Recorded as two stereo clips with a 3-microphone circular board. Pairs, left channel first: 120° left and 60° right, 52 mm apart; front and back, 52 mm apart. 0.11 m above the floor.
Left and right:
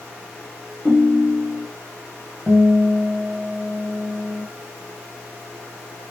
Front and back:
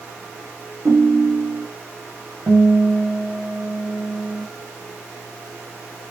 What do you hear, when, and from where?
0.8 s a ringtone: 170° right, 3.5 m
2.5 s a guitar: 155° right, 4.5 m